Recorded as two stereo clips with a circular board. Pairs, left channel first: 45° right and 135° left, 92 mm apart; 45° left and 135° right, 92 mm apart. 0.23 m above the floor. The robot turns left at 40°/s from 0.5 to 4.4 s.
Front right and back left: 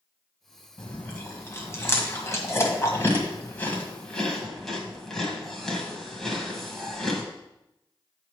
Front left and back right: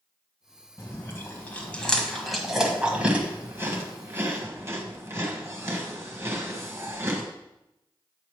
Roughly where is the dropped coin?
No dropped coin in this recording.